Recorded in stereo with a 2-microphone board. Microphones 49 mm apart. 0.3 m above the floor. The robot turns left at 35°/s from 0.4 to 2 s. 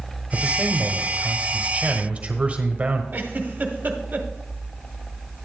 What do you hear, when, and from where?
0.3 s a man speaking: 50° right, 1.2 m; by 3.0 s 105° right, 1.2 m
3.1 s a giggle: 40° right (ahead or behind), 1.1 m